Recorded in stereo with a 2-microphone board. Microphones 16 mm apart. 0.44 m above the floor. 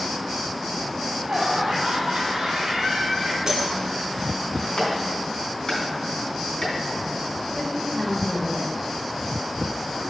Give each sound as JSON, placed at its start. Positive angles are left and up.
{"t": 0.9, "sound": "laughter", "side_deg": -65, "distance_m": 2.5}
{"t": 3.5, "sound": "breaking glass", "side_deg": -50, "distance_m": 2.0}
{"t": 4.8, "sound": "a clap", "side_deg": 50, "distance_m": 3.5}
{"t": 7.5, "sound": "a woman speaking", "side_deg": 25, "distance_m": 2.0}